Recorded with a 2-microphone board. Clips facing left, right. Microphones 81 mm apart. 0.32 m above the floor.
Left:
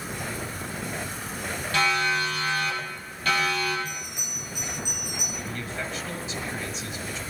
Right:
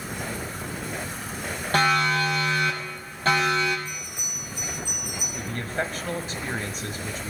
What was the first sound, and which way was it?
A siren, 40° right (ahead or behind).